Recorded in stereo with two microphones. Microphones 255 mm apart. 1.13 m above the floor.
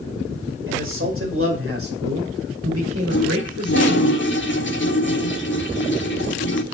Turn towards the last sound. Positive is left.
turn(degrees=50)  # may be behind; listen again after turning